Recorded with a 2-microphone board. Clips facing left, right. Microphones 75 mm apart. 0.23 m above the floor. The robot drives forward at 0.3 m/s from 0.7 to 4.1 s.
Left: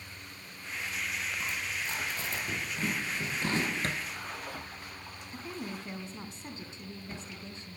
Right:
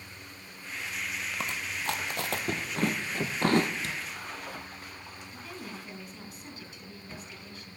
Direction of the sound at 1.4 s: 75° right (ahead or behind).